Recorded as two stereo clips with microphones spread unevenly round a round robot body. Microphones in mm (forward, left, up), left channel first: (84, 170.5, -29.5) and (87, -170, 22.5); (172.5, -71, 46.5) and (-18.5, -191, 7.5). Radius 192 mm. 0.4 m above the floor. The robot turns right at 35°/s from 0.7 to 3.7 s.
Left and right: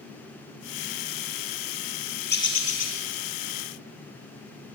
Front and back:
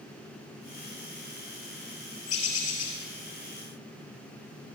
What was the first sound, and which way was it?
A bird, 25° left.